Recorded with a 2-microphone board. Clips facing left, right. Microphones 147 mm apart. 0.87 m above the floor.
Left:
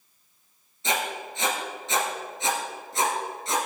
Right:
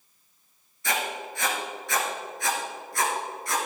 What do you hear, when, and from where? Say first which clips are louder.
0.8 s writing: left 1 dB; 20° left (ahead or behind), 2.5 m